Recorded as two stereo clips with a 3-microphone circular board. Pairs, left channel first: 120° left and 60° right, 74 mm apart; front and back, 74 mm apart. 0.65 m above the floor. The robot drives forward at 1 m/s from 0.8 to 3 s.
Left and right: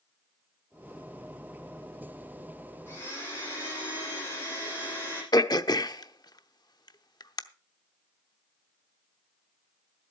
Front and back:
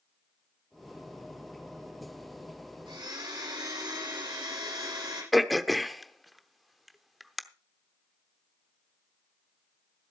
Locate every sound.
2.9 s a blender: straight behind, 9 m
5.3 s throat clearing: 90° left, 0.8 m